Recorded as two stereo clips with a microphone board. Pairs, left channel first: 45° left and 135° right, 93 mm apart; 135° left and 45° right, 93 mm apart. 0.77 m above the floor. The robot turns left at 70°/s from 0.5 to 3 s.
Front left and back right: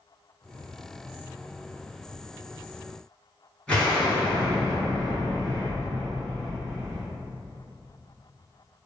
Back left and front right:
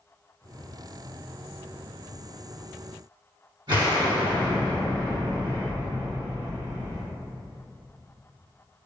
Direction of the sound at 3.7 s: 30° right.